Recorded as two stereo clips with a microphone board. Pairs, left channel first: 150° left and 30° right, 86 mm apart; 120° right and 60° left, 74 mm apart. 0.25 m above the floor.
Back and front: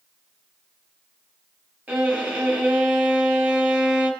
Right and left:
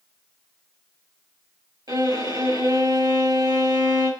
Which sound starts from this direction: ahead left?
A violin, at 1.9 s.